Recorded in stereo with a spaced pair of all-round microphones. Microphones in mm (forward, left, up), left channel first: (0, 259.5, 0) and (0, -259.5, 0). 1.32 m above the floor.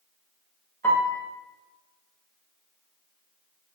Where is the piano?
5° left (ahead or behind), 0.8 m.